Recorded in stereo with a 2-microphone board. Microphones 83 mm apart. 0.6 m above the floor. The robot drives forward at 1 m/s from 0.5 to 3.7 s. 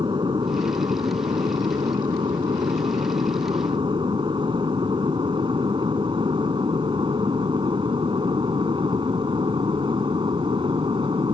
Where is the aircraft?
65° right (ahead or behind); by 11.3 s 75° right (ahead or behind).